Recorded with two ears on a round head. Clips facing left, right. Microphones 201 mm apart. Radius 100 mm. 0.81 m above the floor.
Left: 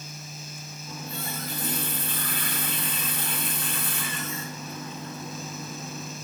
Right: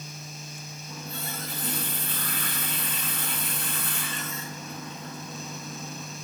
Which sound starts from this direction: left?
A running tap, at 0.9 s.